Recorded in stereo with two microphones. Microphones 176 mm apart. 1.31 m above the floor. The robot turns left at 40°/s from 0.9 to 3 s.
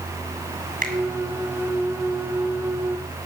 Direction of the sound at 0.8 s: 55° right (ahead or behind).